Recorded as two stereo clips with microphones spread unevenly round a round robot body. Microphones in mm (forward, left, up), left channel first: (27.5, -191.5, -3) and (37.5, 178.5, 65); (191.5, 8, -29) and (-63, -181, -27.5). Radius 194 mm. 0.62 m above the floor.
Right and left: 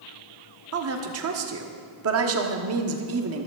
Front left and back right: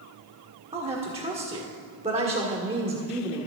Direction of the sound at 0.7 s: 145° left.